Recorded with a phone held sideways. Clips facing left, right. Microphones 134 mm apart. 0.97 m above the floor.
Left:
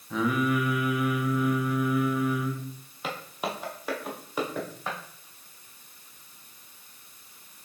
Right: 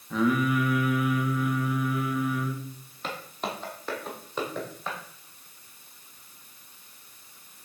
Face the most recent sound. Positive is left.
turn(degrees=10)  # may be behind; listen again after turning